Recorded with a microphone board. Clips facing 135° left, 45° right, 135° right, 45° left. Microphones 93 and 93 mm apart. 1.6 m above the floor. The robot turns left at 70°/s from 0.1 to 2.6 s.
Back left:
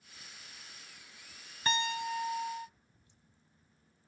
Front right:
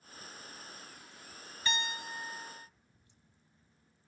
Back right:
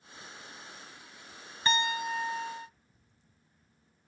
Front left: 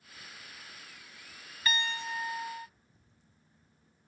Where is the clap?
I don't hear a clap.